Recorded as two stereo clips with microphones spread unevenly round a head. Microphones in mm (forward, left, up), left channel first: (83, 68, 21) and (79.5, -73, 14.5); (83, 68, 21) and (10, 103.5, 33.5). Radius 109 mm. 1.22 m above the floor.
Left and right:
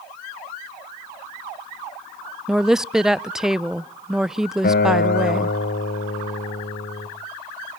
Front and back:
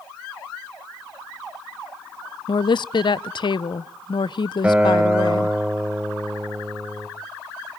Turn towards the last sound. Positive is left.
turn(degrees=80)